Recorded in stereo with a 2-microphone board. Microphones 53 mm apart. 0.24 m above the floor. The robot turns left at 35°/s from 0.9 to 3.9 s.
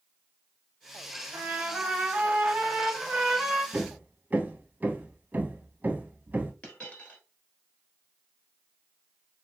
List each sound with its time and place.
1.3 s a trumpet: 25° right (ahead or behind), 1.4 m; by 3.6 s 10° right (ahead or behind), 1.4 m
3.7 s hammering: 40° right (ahead or behind), 0.6 m; by 6.5 s 35° right (ahead or behind), 0.6 m
6.6 s a dropped coin: 30° left (ahead or behind), 1.4 m